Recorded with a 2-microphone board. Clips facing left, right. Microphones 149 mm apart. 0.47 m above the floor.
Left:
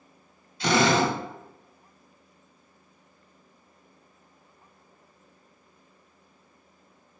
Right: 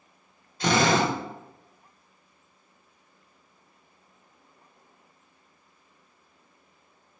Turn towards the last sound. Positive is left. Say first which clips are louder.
# left 1 dB
turn(degrees=-45)  # may be behind; listen again after turning